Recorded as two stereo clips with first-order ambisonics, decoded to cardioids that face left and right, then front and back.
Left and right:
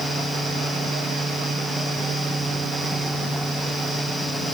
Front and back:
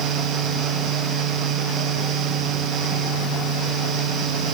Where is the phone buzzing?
No phone buzzing in this recording.